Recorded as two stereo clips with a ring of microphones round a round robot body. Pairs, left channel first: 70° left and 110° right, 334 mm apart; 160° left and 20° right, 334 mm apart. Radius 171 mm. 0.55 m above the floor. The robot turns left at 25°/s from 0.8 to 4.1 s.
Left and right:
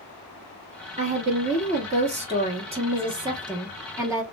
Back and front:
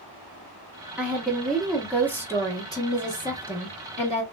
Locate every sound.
1.0 s a woman speaking: 100° right, 1.2 m; by 4.2 s straight behind, 1.2 m